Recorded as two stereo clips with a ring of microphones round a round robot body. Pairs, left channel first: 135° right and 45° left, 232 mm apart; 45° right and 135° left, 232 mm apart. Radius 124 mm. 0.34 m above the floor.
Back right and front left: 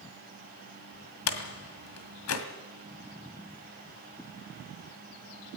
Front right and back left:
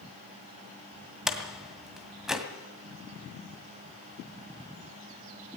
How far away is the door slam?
About 1.9 m.